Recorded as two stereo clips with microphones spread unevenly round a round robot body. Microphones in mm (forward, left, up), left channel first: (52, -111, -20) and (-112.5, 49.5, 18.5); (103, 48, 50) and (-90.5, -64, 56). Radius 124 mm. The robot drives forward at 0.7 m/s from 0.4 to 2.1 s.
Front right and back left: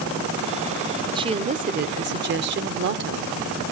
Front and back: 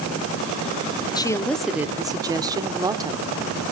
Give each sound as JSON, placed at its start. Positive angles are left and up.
{"t": 1.1, "sound": "a woman speaking", "azimuth_deg": 65, "distance_m": 1.0}